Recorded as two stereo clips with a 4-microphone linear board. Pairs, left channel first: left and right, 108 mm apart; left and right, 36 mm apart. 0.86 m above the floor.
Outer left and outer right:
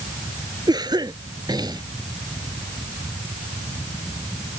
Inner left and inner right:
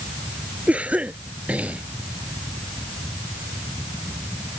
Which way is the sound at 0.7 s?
40° right (ahead or behind).